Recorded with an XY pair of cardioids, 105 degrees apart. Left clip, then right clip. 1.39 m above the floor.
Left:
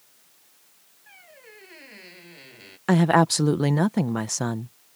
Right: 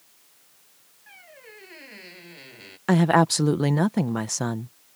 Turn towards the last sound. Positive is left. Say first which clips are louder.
# even
turn(degrees=5)